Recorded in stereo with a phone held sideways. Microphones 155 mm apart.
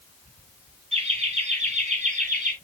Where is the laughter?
40° right (ahead or behind), 4 m; by 2.5 s 55° right (ahead or behind), 3 m.